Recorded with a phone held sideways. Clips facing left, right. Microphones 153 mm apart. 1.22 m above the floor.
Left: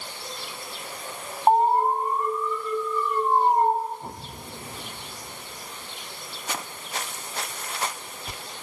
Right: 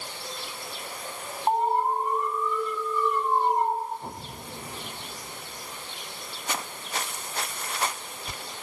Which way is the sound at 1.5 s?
45° left (ahead or behind).